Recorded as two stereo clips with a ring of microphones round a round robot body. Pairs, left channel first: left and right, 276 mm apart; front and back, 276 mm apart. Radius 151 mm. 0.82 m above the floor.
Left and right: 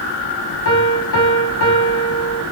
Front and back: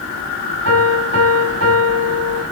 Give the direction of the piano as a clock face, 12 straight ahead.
8 o'clock.